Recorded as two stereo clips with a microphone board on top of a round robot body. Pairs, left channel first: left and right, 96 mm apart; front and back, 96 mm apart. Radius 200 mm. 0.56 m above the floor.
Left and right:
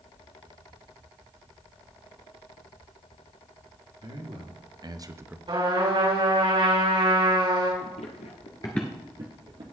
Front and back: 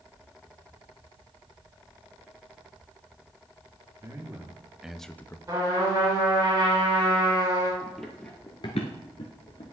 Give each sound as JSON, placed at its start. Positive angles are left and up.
{"t": 4.0, "sound": "a man speaking", "azimuth_deg": -120, "distance_m": 1.8}
{"t": 5.5, "sound": "a trumpet", "azimuth_deg": -120, "distance_m": 5.5}
{"t": 7.8, "sound": "running footsteps", "azimuth_deg": 90, "distance_m": 1.4}